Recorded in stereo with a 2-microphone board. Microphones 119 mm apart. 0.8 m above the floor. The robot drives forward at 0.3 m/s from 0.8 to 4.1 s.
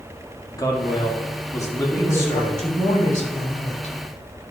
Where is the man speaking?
30° left (ahead or behind), 1.6 m; by 2.6 s 20° left (ahead or behind), 2 m.